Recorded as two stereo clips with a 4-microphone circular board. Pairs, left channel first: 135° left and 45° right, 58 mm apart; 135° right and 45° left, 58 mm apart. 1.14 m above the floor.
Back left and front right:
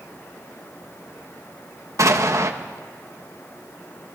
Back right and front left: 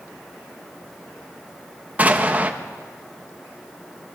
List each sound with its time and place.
2.0 s an explosion: 20° right, 1.4 m